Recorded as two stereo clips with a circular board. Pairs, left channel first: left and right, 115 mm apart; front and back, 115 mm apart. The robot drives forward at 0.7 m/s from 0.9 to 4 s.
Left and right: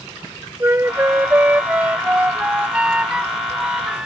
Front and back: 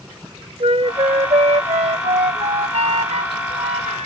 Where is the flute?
155° right; by 4.1 s 175° right.